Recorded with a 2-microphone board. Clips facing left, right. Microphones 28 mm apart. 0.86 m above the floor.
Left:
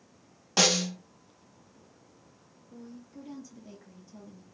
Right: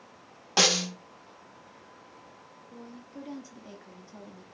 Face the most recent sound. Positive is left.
turn(degrees=-25)  # may be behind; listen again after turning